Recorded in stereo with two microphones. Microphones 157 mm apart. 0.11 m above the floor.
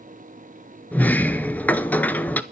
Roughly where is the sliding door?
Centre.